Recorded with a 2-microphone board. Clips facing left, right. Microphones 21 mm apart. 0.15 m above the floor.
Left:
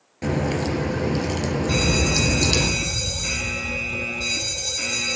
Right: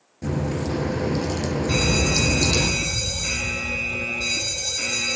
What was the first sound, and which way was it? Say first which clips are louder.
A crack: left 3 dB; 55° left (ahead or behind).